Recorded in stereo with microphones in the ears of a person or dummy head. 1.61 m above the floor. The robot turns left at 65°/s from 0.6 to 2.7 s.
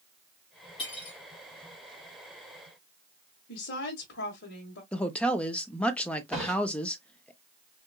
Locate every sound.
0.8 s cutlery clinking: 30° left (ahead or behind), 1.6 m; by 1.2 s 50° left (ahead or behind), 1.6 m
3.5 s a woman speaking: 60° left (ahead or behind), 1.5 m
4.9 s a woman speaking: 5° left (ahead or behind), 0.7 m
6.3 s a drawer: 5° left (ahead or behind), 2.5 m